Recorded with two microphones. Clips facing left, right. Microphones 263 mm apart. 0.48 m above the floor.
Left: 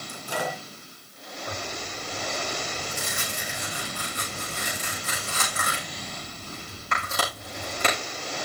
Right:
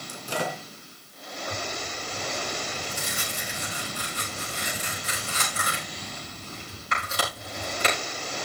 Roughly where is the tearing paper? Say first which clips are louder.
Right 1 dB; left.